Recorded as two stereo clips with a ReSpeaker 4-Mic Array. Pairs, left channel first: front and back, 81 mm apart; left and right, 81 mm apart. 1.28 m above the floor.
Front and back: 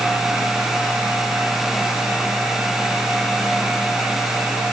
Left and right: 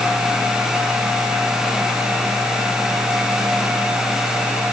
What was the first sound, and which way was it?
Only background noise.